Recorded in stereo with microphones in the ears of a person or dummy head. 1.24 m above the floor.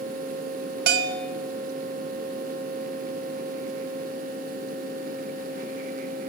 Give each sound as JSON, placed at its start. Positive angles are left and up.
{"t": 0.9, "sound": "a bell", "side_deg": -60, "distance_m": 3.0}